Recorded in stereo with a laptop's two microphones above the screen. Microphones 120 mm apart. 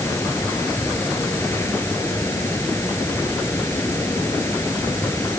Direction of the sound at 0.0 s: 20° left (ahead or behind).